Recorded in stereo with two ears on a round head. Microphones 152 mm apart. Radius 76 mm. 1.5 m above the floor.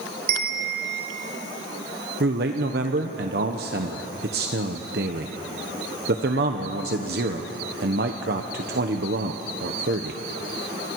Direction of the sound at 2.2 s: 60° right (ahead or behind).